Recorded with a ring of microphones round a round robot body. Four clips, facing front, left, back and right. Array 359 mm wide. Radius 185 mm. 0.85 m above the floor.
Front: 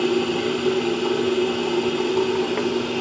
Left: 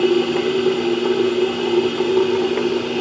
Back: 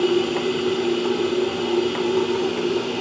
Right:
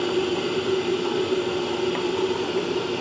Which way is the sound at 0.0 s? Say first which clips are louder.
Left 7 dB, back 1 dB; 95° left.